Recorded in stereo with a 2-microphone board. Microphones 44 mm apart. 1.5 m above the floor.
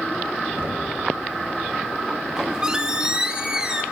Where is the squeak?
15° right (ahead or behind), 1.0 m.